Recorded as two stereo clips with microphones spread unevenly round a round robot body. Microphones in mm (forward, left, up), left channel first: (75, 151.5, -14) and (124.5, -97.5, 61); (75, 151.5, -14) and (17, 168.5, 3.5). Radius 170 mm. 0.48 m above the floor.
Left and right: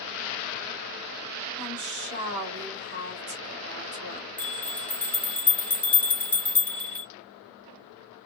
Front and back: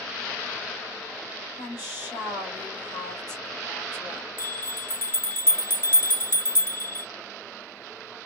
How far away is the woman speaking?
About 1.9 m.